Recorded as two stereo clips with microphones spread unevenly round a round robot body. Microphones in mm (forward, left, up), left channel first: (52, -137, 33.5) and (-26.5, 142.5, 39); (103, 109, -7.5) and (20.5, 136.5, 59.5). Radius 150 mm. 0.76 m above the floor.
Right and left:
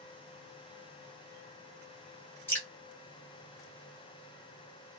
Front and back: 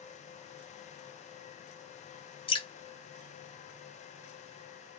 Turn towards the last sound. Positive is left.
turn(degrees=10)